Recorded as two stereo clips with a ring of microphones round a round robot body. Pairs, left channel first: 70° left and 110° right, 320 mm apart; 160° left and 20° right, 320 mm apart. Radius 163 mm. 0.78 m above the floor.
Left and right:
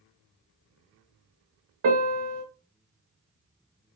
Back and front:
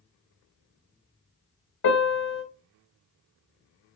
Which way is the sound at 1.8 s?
165° right.